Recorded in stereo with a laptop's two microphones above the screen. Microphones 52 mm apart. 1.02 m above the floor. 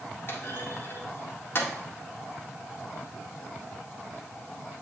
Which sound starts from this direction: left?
A clunk, at 0.3 s.